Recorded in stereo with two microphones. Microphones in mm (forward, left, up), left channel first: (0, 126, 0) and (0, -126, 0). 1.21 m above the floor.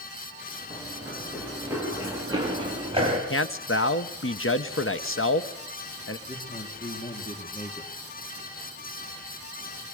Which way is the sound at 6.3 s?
25° left (ahead or behind).